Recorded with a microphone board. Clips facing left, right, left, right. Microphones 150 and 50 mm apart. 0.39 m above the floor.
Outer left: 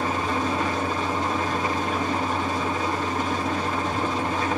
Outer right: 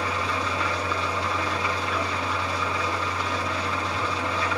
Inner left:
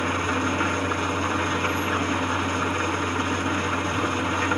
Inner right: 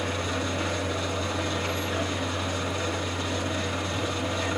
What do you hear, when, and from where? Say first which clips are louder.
0.0 s an engine running: outer left 3 dB, inner left 5 dB; 50° left (ahead or behind), 3 m